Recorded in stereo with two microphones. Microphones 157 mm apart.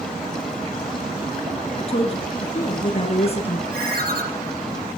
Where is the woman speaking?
40° left (ahead or behind), 2 m.